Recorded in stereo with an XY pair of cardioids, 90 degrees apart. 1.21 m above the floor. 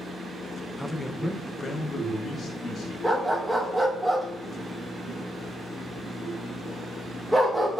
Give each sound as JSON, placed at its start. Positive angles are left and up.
{"t": 0.8, "sound": "a man speaking", "azimuth_deg": 5, "distance_m": 0.6}
{"t": 3.0, "sound": "a dog barking", "azimuth_deg": -5, "distance_m": 1.9}